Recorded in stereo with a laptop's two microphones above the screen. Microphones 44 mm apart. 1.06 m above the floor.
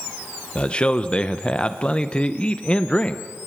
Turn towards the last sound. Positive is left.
turn(degrees=25)  # may be behind; listen again after turning